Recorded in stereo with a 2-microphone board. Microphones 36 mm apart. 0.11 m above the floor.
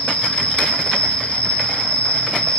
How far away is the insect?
About 2.5 m.